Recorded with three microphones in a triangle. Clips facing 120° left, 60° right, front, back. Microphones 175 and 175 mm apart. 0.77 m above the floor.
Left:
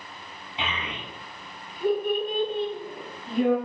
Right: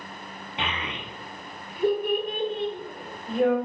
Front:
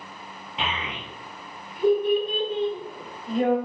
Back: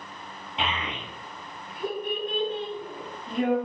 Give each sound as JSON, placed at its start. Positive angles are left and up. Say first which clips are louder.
{"t": 0.6, "sound": "a child speaking", "louder": "right 1 dB, even", "azimuth_deg": -90, "distance_m": 1.4}